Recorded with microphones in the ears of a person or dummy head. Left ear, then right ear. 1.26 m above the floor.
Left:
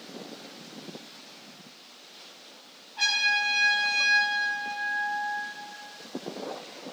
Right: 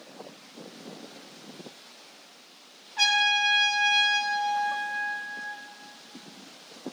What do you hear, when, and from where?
3.0 s a trumpet: 60° right (ahead or behind), 5.5 m